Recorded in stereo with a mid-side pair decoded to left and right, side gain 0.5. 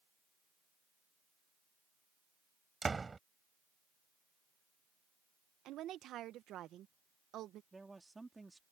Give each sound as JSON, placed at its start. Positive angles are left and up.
{"t": 2.8, "sound": "a door slam", "azimuth_deg": -20}
{"t": 5.7, "sound": "a woman speaking", "azimuth_deg": -65}
{"t": 7.7, "sound": "a man speaking", "azimuth_deg": -15}